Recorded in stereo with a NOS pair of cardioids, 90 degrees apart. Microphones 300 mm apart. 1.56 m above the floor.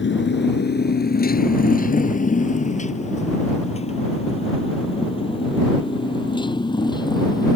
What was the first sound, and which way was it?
A motorcycle, 40° left.